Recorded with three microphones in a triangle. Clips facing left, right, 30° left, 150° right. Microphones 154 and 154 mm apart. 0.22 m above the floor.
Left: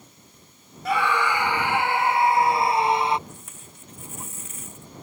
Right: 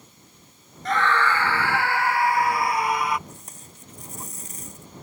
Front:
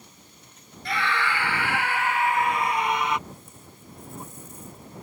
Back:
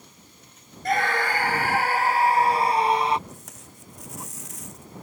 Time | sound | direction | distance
0.8 | a scream | 170° left | ?
3.3 | tape being pulled | 140° right | ?